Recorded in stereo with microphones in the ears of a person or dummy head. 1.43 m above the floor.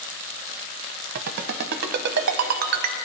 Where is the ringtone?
55° right (ahead or behind), 0.6 m.